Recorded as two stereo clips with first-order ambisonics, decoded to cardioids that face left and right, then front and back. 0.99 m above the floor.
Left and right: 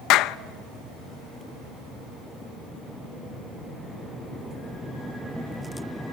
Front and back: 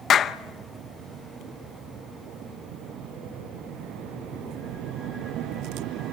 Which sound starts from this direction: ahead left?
A clap, at 0.1 s.